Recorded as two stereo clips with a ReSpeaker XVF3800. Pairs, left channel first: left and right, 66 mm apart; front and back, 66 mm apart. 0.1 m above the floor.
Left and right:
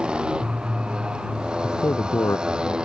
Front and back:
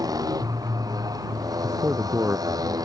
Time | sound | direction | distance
0.0 | a motorcycle | 165° right | ?
1.6 | a man speaking | 130° left | ?